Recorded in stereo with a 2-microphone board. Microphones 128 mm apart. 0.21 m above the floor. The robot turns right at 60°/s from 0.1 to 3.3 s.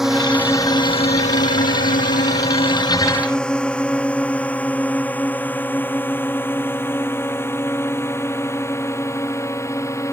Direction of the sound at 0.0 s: 5° right (ahead or behind).